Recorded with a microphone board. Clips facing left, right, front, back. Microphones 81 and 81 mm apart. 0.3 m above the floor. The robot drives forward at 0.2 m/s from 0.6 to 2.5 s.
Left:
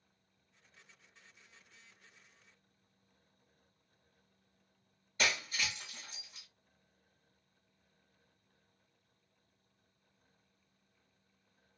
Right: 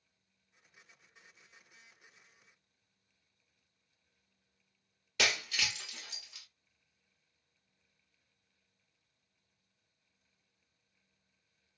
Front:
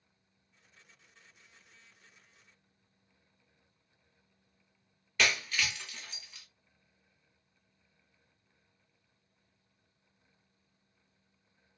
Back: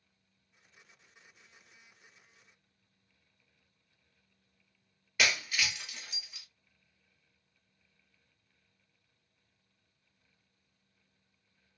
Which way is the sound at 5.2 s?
100° right.